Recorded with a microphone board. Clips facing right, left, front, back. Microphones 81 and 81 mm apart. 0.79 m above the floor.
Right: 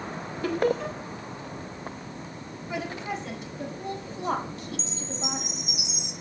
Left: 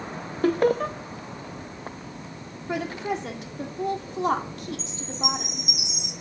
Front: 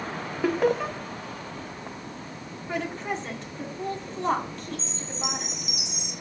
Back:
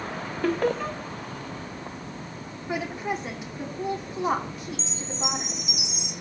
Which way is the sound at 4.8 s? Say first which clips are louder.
Left 3 dB, back 2 dB; 115° left.